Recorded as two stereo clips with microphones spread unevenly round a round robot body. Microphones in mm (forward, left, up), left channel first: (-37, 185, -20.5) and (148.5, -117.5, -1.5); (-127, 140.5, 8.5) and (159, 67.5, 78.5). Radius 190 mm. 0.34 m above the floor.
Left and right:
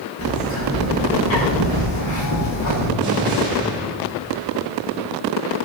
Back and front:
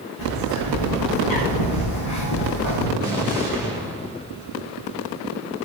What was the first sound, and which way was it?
A bird, 175° left.